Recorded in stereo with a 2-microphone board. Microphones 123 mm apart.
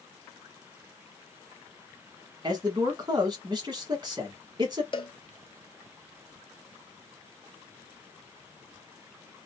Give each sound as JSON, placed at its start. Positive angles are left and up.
{"t": 2.4, "sound": "a man speaking", "side_deg": -35, "distance_m": 1.2}
{"t": 4.9, "sound": "a cowbell", "side_deg": 45, "distance_m": 0.5}